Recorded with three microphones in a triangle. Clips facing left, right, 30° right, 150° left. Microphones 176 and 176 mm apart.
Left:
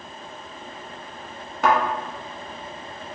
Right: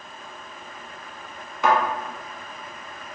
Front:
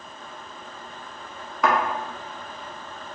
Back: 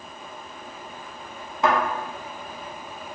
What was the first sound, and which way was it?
A thud, 95° left.